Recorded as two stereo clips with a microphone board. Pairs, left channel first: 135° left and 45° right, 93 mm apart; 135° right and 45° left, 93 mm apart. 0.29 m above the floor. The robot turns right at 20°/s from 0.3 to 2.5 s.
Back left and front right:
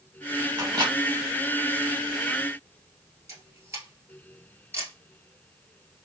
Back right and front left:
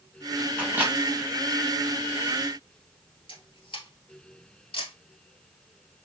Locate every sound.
0.6 s a microwave: 25° right, 1.7 m; by 0.9 s 20° right, 1.7 m
3.3 s a camera shutter: 110° right, 1.7 m